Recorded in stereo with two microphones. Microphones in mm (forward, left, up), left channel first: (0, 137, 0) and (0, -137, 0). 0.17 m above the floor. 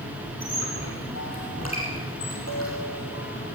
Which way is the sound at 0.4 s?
60° left (ahead or behind).